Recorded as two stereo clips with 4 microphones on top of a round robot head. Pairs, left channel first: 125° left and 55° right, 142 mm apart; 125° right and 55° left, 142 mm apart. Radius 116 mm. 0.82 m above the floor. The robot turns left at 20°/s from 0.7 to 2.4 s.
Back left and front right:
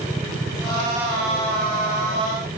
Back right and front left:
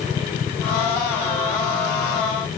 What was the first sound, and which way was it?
Only background noise.